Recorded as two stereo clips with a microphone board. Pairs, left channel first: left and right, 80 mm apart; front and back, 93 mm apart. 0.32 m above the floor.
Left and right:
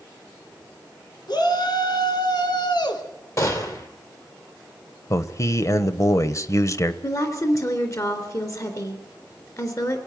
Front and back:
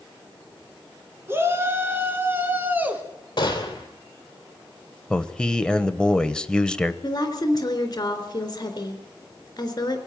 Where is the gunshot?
40° left, 3 m.